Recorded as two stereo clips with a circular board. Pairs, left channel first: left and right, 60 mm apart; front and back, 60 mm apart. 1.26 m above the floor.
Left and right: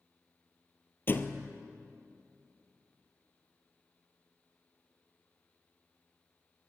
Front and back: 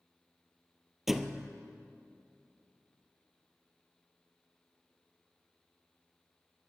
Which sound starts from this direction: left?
A thud, at 1.1 s.